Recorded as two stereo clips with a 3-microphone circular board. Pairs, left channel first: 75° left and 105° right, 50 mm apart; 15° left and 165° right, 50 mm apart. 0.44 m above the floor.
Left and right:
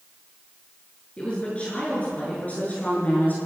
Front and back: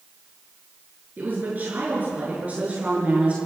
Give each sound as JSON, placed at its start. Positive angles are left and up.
{"t": 1.2, "sound": "a woman speaking", "azimuth_deg": 140, "distance_m": 7.0}